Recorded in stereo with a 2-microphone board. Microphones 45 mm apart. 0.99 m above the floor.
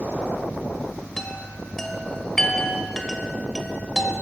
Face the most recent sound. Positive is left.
turn(degrees=10)  # may be behind; listen again after turning